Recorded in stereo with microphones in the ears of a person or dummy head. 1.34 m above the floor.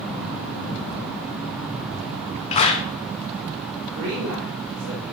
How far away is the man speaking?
About 2.5 m.